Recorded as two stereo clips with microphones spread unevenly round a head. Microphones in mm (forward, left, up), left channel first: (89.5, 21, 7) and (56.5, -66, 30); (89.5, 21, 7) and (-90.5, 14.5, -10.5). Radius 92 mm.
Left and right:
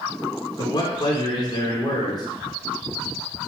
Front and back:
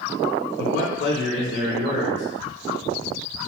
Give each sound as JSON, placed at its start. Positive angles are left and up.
{"t": 0.6, "sound": "a man speaking", "azimuth_deg": 30, "distance_m": 3.5}